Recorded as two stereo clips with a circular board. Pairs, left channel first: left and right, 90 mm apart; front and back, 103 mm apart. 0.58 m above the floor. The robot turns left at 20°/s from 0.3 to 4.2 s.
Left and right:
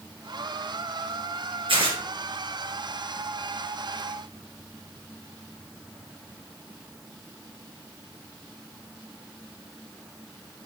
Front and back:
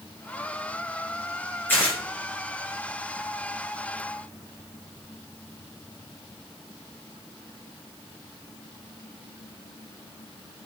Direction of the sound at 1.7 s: 70° right.